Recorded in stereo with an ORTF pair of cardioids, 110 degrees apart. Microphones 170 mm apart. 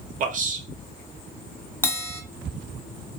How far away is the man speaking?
About 1.5 m.